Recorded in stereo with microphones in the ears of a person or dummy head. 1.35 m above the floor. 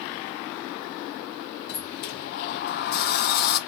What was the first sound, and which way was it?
A sliding door, 60° left (ahead or behind).